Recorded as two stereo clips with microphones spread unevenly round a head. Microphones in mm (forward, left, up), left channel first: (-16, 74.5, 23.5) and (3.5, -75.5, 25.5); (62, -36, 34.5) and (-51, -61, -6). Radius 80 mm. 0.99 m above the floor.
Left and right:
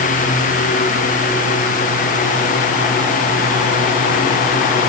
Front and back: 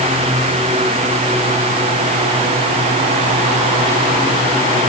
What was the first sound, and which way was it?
Only background noise.